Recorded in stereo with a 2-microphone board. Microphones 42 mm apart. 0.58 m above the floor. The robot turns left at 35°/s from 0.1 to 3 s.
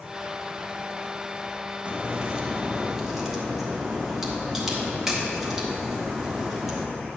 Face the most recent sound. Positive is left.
turn(degrees=-165)